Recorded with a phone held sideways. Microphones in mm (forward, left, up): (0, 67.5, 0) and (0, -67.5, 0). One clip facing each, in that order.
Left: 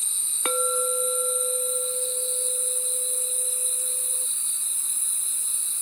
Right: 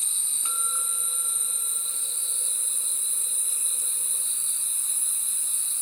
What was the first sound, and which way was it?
A clink, 80° left.